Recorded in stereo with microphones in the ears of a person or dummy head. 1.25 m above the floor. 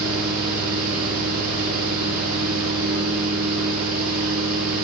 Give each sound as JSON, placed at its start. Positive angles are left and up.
{"t": 0.0, "sound": "a fan", "side_deg": -75, "distance_m": 2.0}